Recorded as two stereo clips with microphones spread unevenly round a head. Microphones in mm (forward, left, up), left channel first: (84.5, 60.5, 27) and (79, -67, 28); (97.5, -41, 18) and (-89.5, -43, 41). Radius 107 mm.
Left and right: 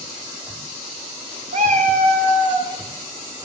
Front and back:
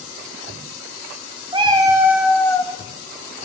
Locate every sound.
1.5 s a cat meowing: 125° right, 1.3 m; by 2.7 s 55° right, 0.9 m